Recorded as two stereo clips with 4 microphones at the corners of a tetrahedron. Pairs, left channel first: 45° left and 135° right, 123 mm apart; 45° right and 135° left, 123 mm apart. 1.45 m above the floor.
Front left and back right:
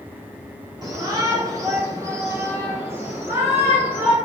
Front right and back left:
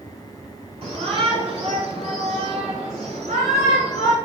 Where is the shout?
170° left, 3 m; by 4.2 s 150° left, 5 m.